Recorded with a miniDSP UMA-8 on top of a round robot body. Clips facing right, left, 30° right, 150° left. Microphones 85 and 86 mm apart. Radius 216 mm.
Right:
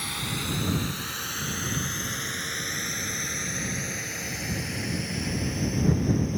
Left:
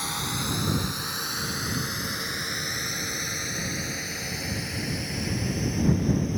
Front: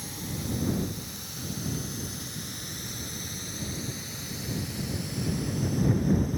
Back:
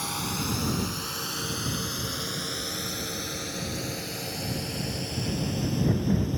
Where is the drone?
155° left; by 6.4 s straight behind.